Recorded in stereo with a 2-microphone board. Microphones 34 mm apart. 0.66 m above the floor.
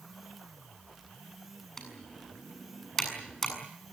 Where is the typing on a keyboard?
15° left (ahead or behind), 7 m.